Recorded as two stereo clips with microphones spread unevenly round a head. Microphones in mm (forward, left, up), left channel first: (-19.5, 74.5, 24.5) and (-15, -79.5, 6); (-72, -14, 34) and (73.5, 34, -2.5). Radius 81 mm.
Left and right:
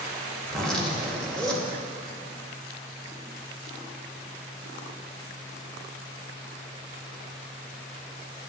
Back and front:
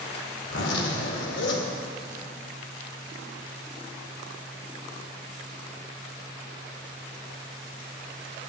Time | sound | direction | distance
0.4 | a zipper | straight behind | 2 m